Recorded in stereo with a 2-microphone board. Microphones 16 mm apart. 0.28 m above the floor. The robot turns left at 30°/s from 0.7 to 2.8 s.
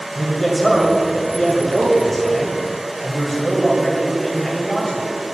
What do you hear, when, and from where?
0.1 s a man speaking: 15° left (ahead or behind), 1.6 m; by 5.1 s 20° left (ahead or behind), 1.6 m